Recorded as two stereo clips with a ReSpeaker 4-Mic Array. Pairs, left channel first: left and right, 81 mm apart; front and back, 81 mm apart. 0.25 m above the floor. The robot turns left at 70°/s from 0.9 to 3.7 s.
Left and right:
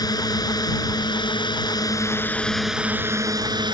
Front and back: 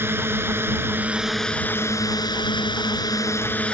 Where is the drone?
120° left; by 3.7 s 75° right.